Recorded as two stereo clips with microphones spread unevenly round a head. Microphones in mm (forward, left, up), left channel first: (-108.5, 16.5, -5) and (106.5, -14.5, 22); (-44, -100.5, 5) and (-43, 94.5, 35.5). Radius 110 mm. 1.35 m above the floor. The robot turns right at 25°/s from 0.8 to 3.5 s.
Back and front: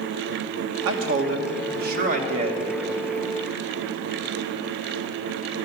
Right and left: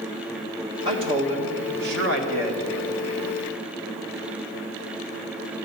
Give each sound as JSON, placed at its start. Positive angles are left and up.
{"t": 0.8, "sound": "a man speaking", "azimuth_deg": 20, "distance_m": 2.0}